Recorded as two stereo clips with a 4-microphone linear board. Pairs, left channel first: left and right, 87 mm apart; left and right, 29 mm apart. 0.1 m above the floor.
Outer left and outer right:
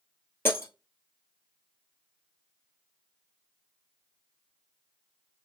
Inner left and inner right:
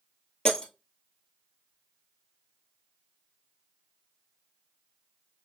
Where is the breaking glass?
25° left (ahead or behind), 1.3 m.